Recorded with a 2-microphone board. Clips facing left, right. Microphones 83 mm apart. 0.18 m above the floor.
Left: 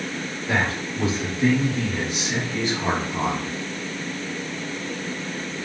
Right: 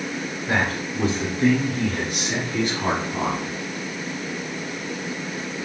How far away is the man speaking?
About 1.7 m.